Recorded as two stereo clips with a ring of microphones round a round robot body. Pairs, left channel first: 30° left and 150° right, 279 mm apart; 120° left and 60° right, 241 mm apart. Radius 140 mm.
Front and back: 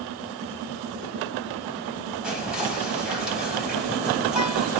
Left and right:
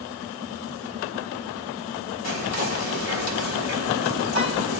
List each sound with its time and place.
2.2 s whispering: 125° left, 4 m